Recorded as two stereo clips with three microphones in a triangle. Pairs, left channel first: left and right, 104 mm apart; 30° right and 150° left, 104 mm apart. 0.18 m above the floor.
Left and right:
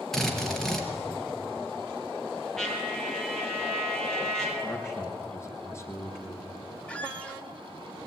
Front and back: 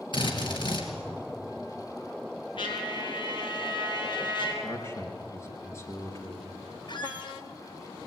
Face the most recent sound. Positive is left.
turn(degrees=10)